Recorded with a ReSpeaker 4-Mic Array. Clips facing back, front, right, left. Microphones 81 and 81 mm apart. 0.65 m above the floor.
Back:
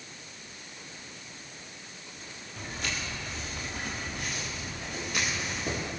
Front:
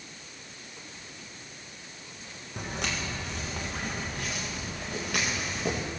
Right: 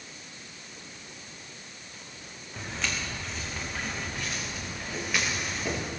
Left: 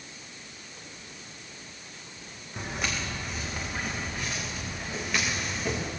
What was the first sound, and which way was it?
Footsteps, 20° left.